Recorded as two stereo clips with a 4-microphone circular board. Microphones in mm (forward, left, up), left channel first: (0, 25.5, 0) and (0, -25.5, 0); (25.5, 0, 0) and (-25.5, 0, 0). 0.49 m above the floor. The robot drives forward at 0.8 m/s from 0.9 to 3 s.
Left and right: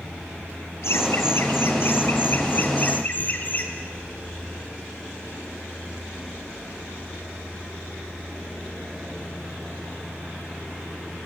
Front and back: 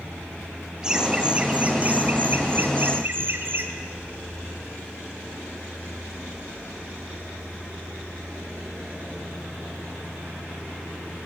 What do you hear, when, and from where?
0.8 s laughter: 105° left, 2 m; by 3.7 s 140° left, 3 m